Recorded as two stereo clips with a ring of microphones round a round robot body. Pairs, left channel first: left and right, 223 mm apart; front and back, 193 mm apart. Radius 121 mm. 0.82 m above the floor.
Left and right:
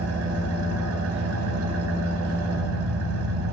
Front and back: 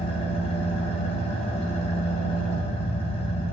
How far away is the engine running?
About 4 m.